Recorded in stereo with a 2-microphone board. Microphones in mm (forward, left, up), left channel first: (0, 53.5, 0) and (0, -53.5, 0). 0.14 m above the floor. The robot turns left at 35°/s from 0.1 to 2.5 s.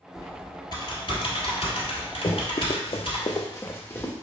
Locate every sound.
0.1 s typing on a keyboard: 25° left (ahead or behind), 1.7 m; by 3.2 s 55° left (ahead or behind), 1.7 m
2.2 s running footsteps: 60° left (ahead or behind), 0.8 m; by 4.1 s 15° left (ahead or behind), 1.1 m